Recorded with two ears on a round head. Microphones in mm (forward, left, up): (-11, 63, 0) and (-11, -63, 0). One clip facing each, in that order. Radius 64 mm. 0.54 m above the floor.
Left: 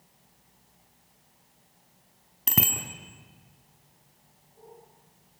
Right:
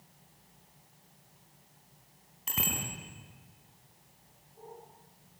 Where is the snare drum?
No snare drum in this recording.